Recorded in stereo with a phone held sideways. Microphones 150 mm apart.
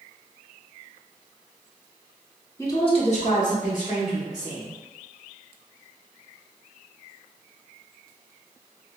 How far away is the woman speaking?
About 0.6 m.